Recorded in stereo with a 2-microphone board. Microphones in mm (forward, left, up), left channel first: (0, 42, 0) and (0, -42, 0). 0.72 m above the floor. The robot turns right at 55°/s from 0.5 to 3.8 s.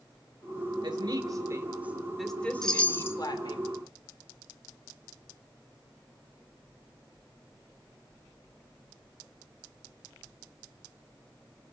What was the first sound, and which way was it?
A woman speaking, 75° right.